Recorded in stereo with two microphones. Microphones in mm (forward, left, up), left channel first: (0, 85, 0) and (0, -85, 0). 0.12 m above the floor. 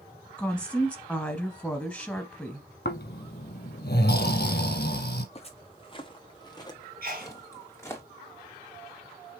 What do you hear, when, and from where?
0.4 s a woman speaking: 5° left (ahead or behind), 1.1 m
2.9 s snoring: 75° left (ahead or behind), 1.1 m
5.3 s footsteps: 35° left (ahead or behind), 1.4 m; by 8.0 s 15° left (ahead or behind), 2.5 m
7.0 s a sneeze: 60° right (ahead or behind), 3 m